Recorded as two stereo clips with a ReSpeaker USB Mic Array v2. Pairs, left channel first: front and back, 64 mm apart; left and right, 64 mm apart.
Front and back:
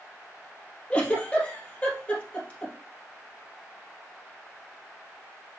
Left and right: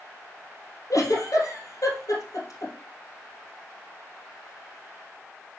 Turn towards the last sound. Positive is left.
turn(degrees=70)